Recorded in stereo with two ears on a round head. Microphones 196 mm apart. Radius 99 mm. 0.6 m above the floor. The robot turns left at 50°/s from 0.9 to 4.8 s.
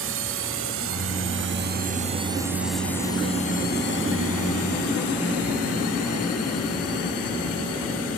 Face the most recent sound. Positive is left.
turn(degrees=75)  # may be behind; listen again after turning